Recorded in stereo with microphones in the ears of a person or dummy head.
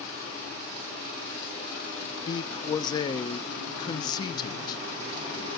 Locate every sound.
2.3 s a man speaking: 30° left (ahead or behind), 0.7 m